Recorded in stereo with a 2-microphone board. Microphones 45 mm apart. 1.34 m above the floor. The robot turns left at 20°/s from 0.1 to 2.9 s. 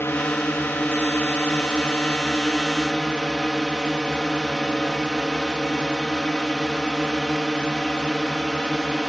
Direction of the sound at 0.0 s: 75° left.